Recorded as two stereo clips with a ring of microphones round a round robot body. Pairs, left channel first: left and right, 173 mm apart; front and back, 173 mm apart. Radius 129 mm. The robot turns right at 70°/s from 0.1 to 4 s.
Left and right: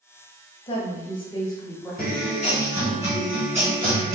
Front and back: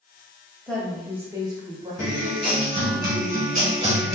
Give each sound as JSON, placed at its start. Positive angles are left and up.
{"t": 0.7, "sound": "a woman speaking", "azimuth_deg": 75, "distance_m": 0.9}
{"t": 2.0, "sound": "a guitar", "azimuth_deg": 85, "distance_m": 1.9}